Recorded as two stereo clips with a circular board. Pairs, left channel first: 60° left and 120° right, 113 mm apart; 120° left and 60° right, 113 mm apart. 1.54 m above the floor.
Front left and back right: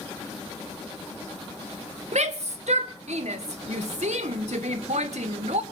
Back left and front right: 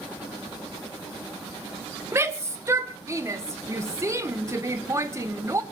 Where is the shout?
125° right, 1.8 m.